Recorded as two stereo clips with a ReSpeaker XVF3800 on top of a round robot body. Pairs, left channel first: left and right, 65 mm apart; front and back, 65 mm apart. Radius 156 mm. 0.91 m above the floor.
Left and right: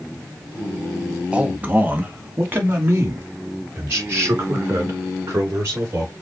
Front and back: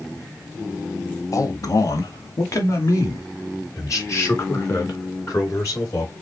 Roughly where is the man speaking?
Ahead.